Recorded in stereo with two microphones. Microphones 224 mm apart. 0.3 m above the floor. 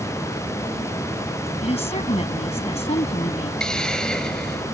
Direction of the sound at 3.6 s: 5° left (ahead or behind).